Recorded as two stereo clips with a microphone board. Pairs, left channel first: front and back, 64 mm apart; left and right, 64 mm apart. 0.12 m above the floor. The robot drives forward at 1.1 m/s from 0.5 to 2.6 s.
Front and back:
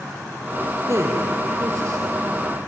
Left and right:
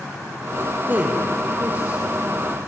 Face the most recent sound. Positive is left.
turn(degrees=-160)